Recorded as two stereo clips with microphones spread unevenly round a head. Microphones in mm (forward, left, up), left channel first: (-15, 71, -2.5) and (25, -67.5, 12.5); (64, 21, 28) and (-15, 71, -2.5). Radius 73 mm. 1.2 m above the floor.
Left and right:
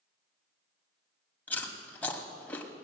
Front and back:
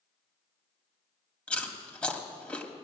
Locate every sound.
1.5 s chewing: 20° left, 1.5 m